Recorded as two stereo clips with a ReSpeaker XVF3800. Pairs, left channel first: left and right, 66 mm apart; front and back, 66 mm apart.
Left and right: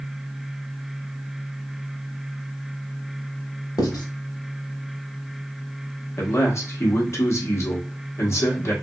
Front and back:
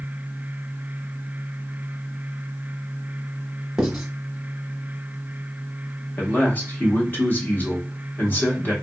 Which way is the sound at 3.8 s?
95° left.